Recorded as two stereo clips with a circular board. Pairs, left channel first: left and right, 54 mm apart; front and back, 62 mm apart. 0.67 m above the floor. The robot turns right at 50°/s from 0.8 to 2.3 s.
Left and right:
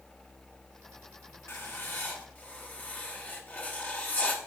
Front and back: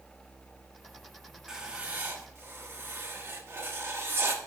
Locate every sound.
1.5 s writing: 100° left, 1.2 m; by 4.4 s 145° left, 1.2 m